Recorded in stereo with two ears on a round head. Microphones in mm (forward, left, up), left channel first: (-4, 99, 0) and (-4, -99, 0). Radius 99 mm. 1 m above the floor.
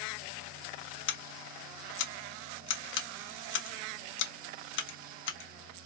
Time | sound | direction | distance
1.1 | scissors | 60° left (ahead or behind) | 1.1 m